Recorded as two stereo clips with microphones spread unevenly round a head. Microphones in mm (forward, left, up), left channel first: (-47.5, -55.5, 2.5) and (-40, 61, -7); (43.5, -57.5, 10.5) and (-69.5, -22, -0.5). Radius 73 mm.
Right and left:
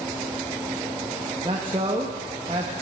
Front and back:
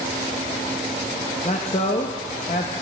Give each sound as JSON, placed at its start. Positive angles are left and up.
{"t": 1.4, "sound": "a man speaking", "azimuth_deg": 30, "distance_m": 0.7}